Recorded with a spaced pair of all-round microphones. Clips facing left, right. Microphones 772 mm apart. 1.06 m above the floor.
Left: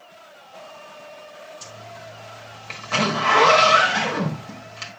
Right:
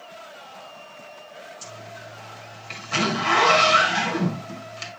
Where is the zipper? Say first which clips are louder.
Even; 75° left (ahead or behind), 1.6 m.